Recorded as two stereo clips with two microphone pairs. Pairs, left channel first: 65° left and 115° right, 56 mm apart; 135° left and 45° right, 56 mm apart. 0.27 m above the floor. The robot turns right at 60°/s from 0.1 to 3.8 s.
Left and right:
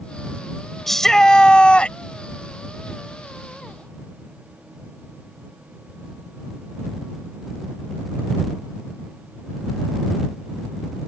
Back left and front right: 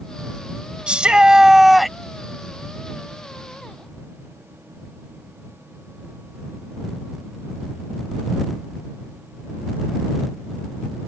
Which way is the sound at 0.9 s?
15° right.